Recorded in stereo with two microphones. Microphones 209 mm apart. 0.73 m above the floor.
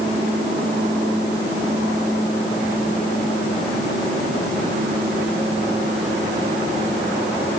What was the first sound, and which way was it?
Only background noise.